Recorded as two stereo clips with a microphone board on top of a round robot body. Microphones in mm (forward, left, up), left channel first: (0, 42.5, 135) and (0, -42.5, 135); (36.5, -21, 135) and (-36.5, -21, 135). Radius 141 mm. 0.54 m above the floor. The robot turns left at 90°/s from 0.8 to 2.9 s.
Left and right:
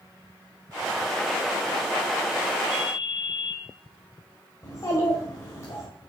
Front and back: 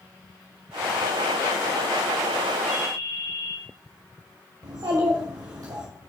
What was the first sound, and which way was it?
A ringtone, 90° left.